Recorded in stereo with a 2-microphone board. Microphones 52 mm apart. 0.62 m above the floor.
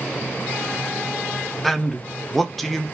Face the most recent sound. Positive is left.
turn(degrees=5)  # may be behind; listen again after turning